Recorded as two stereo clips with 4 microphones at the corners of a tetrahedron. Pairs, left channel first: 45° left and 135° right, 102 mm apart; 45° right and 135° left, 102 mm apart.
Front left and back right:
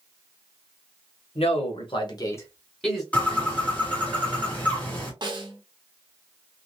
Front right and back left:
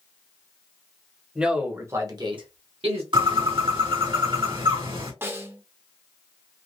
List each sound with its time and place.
1.4 s a man speaking: 50° left, 1.2 m; by 3.0 s 140° left, 1.1 m
3.1 s a bird: 115° left, 1.9 m
5.2 s a snare drum: 165° right, 0.7 m